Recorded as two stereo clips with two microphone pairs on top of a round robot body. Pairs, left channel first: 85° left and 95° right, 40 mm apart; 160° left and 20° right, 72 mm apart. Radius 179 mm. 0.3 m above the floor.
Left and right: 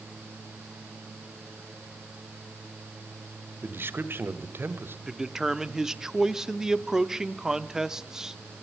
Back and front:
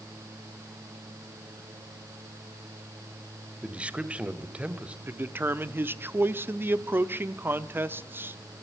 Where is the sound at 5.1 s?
30° right, 1.0 m.